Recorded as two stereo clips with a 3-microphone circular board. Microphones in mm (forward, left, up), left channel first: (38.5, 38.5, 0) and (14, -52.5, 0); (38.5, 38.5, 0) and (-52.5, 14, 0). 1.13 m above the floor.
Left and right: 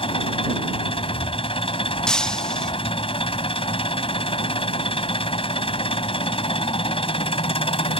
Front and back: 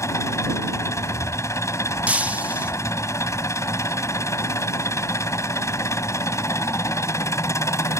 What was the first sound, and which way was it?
An engine running, 75° left.